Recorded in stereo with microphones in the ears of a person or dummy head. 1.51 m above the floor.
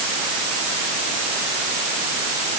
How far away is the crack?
No crack in this recording.